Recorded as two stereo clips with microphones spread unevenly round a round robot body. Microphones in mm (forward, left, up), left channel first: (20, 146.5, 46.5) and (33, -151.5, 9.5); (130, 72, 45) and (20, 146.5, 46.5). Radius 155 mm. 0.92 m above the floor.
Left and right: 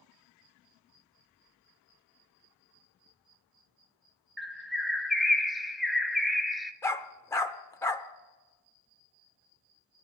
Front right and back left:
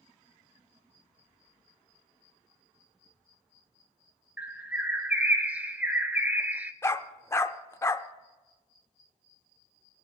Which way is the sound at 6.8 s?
25° left.